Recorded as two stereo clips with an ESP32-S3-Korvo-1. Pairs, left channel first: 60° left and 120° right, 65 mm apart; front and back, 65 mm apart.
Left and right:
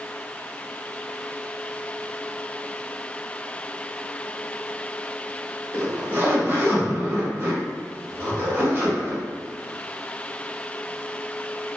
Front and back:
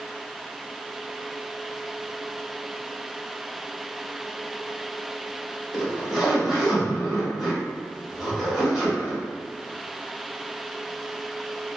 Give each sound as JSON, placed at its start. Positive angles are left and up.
{"t": 5.7, "sound": "a zipper", "azimuth_deg": -95, "distance_m": 1.1}